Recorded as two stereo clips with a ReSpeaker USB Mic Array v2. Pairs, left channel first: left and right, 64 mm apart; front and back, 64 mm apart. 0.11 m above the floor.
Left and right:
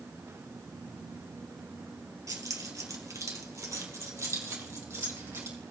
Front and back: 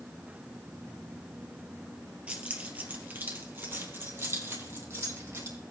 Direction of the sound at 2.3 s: 110° right.